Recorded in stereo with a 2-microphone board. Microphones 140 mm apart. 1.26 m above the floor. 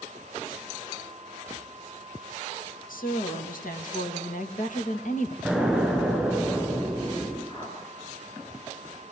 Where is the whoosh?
35° left (ahead or behind), 6 m.